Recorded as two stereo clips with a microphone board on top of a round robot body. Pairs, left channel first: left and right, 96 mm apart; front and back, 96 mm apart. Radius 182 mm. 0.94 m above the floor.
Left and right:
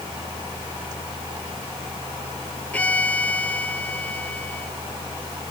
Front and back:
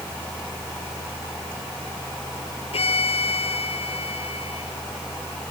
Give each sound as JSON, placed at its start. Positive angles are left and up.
{"t": 2.7, "sound": "a violin", "azimuth_deg": 15}